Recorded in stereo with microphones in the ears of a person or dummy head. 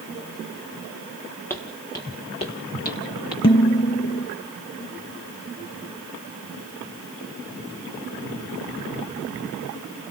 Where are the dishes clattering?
25° left (ahead or behind), 0.6 m.